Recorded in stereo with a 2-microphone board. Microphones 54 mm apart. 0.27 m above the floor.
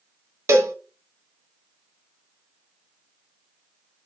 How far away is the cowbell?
About 0.6 m.